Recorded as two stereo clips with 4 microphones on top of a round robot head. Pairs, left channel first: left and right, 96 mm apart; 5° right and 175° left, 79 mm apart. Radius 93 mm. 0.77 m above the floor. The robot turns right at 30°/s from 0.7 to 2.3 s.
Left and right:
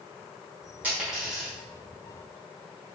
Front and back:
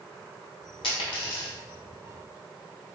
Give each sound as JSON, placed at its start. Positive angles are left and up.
{"t": 0.8, "sound": "a dropped coin", "azimuth_deg": -15, "distance_m": 1.2}